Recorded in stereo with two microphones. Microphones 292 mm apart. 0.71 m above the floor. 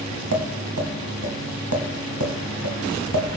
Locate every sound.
0.3 s tapping: 80° right, 2 m